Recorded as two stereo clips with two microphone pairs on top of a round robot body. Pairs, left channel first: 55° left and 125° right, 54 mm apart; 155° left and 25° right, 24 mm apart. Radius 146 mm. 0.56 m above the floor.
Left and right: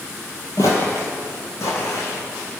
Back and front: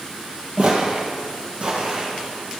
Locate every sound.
0.6 s footsteps: 25° left, 0.6 m; by 2.6 s 15° left, 2 m